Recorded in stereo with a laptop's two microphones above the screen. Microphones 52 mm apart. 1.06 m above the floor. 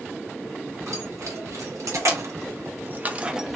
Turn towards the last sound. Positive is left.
turn(degrees=-5)  # may be behind; listen again after turning